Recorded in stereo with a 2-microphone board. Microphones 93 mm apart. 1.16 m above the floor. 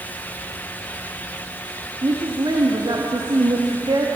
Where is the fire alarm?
I don't hear a fire alarm.